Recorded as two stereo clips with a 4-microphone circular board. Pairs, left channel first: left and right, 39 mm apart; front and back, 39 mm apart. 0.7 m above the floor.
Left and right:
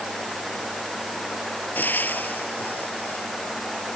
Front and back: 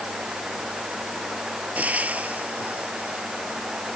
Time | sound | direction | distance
1.8 | frying | 130° left | ?